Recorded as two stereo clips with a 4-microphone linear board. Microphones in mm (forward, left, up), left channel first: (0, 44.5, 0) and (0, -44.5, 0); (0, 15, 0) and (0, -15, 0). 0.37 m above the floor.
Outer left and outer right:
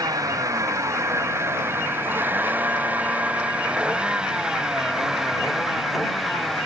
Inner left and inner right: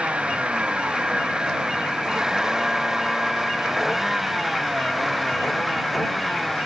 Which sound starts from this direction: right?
A vehicle, at 0.0 s.